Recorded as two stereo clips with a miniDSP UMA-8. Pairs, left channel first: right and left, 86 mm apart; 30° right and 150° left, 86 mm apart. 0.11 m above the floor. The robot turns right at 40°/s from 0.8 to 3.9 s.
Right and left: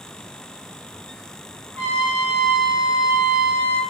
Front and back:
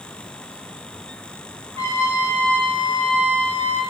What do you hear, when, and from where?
1.8 s a trumpet: 30° right, 0.8 m; by 3.8 s 55° left, 0.8 m